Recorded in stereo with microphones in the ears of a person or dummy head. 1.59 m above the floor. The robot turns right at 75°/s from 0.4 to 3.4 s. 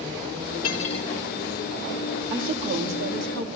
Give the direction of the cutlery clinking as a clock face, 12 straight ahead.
8 o'clock.